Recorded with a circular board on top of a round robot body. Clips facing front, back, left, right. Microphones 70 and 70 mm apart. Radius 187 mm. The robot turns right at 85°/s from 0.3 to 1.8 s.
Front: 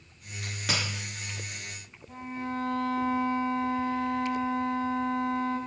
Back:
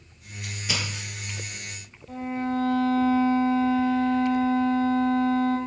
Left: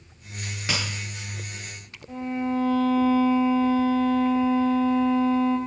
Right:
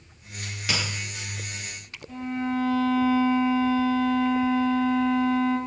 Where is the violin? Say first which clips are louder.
Back 7 dB, left 1 dB; 150° left, 2 m.